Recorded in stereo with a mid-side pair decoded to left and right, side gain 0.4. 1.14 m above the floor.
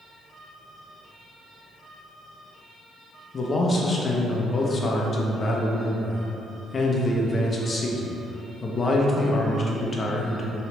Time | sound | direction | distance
3.3 | a man speaking | 40° left | 0.7 m